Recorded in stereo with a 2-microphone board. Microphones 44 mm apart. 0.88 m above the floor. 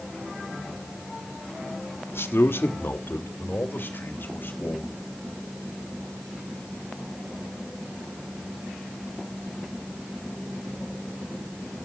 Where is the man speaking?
80° left, 1.7 m; by 5.0 s 60° left (ahead or behind), 4.5 m.